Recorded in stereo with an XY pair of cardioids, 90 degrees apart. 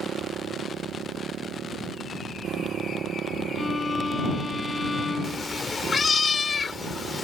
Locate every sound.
0.0 s a motorcycle: 65° right
3.6 s a violin: 25° left
5.2 s a cat meowing: 40° left